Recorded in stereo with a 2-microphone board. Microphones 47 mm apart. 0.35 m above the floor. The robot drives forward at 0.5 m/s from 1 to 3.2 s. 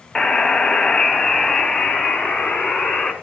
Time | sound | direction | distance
0.1 | a buzzer | 10° left (ahead or behind) | 1.7 m